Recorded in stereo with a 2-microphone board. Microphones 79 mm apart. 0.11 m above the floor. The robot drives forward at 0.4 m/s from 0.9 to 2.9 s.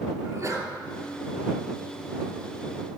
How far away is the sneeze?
About 2.5 m.